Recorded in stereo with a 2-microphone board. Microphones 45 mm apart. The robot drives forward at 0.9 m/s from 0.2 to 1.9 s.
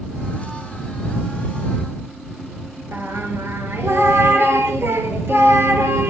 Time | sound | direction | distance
2.9 | singing | 70° right (ahead or behind) | 1.3 m